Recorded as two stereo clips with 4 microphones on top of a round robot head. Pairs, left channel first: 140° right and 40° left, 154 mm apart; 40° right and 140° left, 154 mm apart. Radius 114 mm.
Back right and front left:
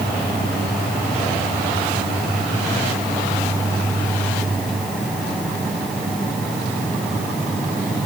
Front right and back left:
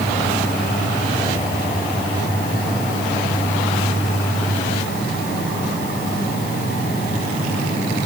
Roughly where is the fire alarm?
No fire alarm in this recording.